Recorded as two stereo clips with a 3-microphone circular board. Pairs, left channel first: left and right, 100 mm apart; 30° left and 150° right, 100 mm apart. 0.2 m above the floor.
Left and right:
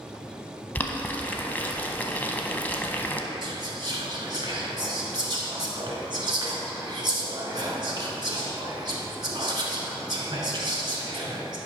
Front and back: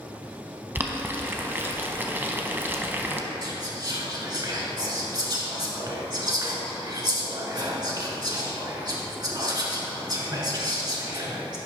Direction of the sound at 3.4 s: 120° right.